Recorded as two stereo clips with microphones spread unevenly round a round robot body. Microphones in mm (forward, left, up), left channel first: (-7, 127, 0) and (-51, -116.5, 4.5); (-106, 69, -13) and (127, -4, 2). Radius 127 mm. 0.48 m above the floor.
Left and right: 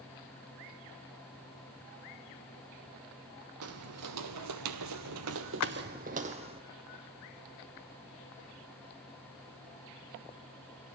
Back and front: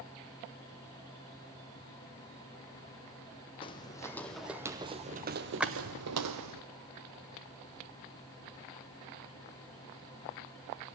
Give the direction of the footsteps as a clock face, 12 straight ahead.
4 o'clock.